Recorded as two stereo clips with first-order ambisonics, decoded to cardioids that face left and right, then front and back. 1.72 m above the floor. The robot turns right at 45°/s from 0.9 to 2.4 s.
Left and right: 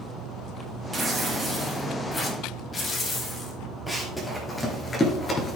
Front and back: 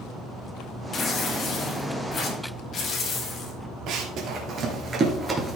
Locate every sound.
0.9 s tearing paper: 30° right, 1.7 m; by 3.6 s 35° left, 1.7 m
3.9 s running footsteps: straight behind, 2 m; by 5.6 s 115° left, 1.7 m